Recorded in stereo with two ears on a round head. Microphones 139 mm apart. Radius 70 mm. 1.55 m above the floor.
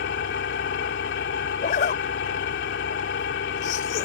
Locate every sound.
0.0 s an engine running: 85° left
1.6 s a zipper: 50° left (ahead or behind)